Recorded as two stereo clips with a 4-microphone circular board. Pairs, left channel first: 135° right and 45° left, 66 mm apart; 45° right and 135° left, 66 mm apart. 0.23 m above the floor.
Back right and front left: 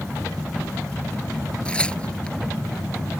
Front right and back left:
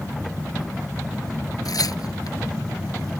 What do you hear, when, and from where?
1.6 s tearing paper: 60° right